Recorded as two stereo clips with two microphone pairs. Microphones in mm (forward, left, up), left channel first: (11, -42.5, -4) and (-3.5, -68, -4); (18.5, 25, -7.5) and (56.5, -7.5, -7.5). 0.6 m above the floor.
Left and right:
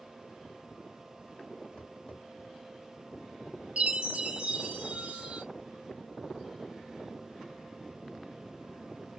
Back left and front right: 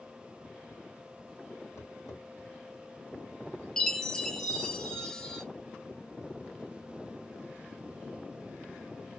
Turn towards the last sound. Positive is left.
turn(degrees=-140)